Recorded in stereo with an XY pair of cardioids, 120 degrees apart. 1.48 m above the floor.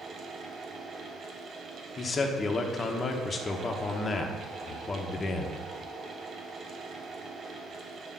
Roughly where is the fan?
Ahead right.